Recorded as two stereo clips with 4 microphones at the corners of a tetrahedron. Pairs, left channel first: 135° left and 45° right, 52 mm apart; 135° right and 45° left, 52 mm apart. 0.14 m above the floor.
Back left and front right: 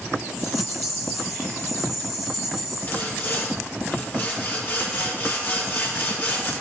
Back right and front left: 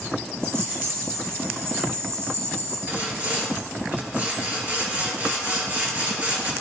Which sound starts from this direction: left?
Sawing, at 2.9 s.